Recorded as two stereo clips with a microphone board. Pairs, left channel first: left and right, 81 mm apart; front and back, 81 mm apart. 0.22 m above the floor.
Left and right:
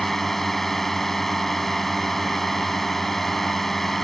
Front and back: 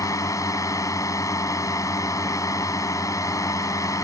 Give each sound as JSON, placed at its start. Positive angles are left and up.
{"t": 0.0, "sound": "a drone", "azimuth_deg": 5}